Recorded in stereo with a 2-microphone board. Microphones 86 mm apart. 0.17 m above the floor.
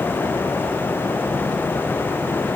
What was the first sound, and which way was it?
Only background noise.